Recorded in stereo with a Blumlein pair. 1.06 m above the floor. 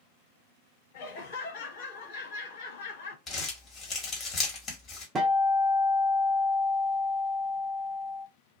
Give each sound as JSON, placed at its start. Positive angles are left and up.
{"t": 0.9, "sound": "laughter", "azimuth_deg": 50, "distance_m": 1.4}
{"t": 3.3, "sound": "crumpling", "azimuth_deg": 25, "distance_m": 1.5}
{"t": 5.2, "sound": "a guitar", "azimuth_deg": -20, "distance_m": 0.7}